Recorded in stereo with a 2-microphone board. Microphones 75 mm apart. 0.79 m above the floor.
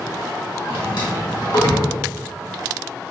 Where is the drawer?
75° left (ahead or behind), 1.0 m.